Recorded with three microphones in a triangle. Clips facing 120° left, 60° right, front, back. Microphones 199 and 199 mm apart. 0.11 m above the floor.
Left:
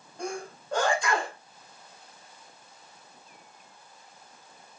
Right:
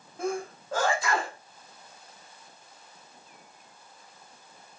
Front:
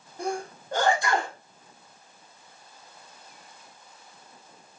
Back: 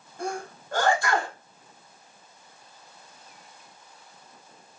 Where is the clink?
No clink in this recording.